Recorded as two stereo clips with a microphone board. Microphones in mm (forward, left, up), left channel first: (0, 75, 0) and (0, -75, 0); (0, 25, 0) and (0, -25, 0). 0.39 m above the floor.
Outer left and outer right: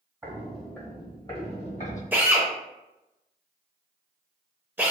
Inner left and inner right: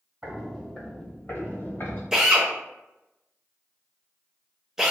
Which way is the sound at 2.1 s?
15° right (ahead or behind).